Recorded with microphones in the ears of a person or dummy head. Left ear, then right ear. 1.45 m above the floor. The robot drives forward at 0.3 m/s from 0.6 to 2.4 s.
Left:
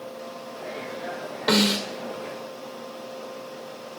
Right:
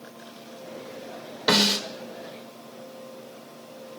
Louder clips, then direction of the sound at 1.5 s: Right 1 dB; 10° left (ahead or behind).